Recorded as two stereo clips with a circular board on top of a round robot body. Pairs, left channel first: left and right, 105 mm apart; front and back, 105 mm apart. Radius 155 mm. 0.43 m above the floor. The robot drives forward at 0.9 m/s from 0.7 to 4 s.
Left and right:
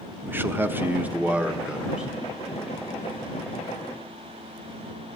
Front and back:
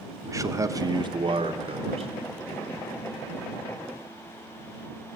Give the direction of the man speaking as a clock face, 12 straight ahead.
5 o'clock.